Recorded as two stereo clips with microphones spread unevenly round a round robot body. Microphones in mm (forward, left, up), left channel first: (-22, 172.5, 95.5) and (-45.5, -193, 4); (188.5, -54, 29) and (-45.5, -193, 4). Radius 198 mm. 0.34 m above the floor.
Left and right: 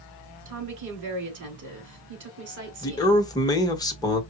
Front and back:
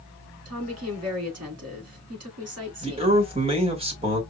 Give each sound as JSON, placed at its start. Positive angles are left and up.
{"t": 0.5, "sound": "a woman speaking", "azimuth_deg": -125, "distance_m": 3.5}
{"t": 2.8, "sound": "a man speaking", "azimuth_deg": -175, "distance_m": 1.6}